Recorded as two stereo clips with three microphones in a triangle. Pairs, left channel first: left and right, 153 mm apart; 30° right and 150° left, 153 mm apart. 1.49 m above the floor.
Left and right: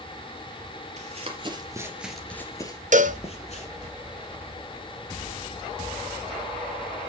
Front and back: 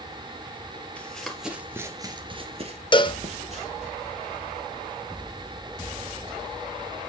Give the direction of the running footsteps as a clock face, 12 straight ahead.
4 o'clock.